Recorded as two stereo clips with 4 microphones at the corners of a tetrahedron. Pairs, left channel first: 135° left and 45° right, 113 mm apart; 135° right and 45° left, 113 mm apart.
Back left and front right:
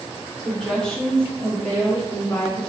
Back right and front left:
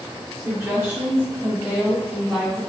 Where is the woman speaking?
45° left, 1.6 m; by 2.6 s 125° left, 1.8 m.